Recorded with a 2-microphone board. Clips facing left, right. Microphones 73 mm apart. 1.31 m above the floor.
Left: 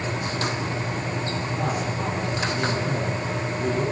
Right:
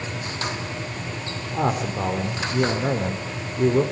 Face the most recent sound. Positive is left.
turn(degrees=-90)